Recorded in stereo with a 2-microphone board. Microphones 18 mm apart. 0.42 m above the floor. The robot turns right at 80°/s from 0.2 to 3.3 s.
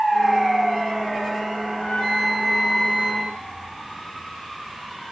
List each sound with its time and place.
1.7 s a flute: 110° left, 5.5 m; by 3.3 s 125° right, 5.5 m